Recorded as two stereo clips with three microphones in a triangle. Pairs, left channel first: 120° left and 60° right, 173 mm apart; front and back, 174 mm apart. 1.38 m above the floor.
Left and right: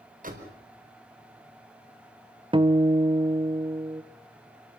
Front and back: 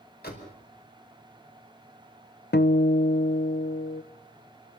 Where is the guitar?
5° right, 0.8 m.